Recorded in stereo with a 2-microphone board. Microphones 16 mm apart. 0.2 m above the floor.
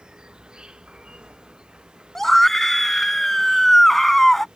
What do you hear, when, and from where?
0.0 s an insect: 65° right (ahead or behind)
2.1 s a scream: 20° left (ahead or behind)